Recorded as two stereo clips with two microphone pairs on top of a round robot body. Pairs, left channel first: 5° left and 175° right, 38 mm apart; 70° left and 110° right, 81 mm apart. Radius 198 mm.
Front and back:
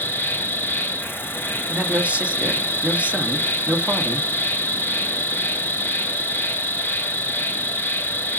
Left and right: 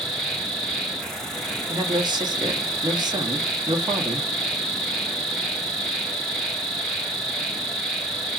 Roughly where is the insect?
Ahead.